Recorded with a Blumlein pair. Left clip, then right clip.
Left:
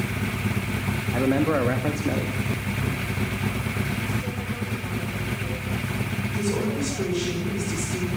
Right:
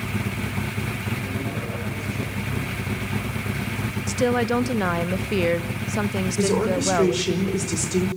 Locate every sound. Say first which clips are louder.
1.1 s a man speaking: left 8 dB; 50° left, 2 m
4.1 s a woman speaking: right 10 dB; 45° right, 0.9 m
6.4 s a woman speaking: right 6 dB; 25° right, 5 m